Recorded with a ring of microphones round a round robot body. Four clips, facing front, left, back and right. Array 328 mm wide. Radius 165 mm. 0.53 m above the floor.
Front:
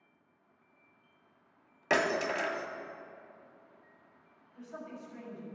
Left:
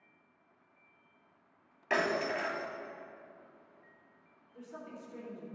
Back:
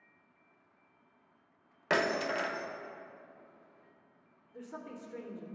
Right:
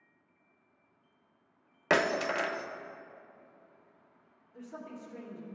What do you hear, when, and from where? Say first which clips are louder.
1.9 s breaking glass: right 3 dB, front 1 dB; 95° right, 0.7 m
4.5 s a woman speaking: right 2 dB, even; 160° right, 1.9 m